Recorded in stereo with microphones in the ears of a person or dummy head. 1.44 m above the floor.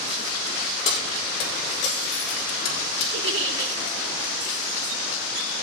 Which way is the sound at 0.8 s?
35° left (ahead or behind).